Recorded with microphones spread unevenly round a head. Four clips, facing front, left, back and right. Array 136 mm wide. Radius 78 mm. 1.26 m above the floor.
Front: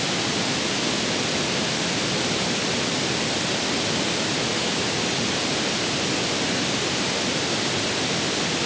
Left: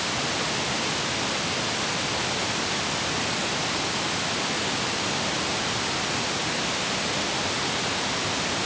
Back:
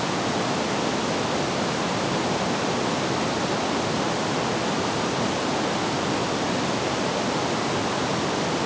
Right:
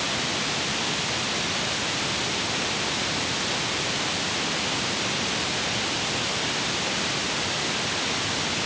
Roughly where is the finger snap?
I don't hear a finger snap.